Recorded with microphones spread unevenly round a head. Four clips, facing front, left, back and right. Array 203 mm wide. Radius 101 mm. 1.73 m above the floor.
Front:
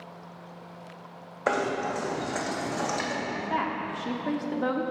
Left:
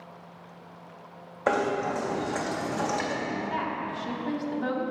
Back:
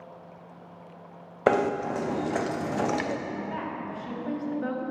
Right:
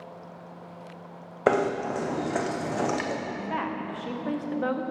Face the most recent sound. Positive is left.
turn(degrees=-20)